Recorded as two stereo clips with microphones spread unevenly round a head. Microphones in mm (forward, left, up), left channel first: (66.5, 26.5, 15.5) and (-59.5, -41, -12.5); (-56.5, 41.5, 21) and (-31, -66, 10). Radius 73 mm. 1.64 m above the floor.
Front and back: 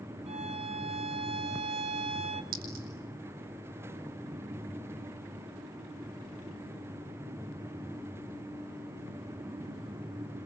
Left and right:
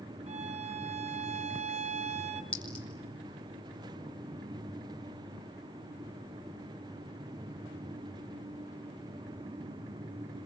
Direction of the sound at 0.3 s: 100° right.